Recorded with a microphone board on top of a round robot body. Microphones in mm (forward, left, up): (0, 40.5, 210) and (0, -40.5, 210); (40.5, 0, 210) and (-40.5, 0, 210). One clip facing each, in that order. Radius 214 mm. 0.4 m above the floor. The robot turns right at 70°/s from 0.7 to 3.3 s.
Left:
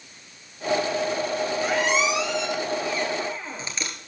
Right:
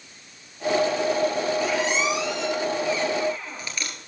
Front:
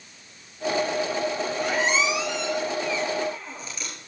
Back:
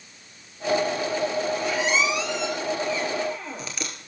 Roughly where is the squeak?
Ahead left.